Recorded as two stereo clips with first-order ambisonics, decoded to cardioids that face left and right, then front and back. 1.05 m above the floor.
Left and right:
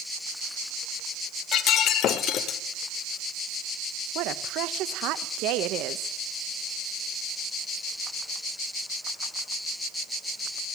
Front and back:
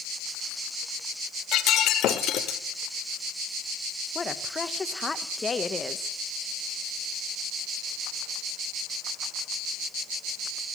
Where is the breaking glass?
45° left, 1.3 m.